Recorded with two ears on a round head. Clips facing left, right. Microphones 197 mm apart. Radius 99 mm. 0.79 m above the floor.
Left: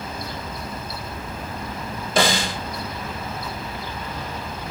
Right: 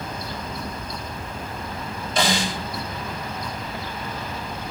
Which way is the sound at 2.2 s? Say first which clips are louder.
Left 2 dB; 45° left (ahead or behind).